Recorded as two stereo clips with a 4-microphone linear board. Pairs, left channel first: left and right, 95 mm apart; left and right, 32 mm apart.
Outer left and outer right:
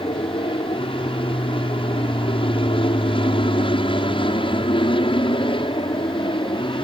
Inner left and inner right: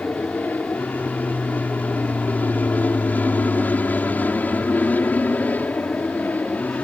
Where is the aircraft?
65° left (ahead or behind); by 6.8 s 60° left (ahead or behind).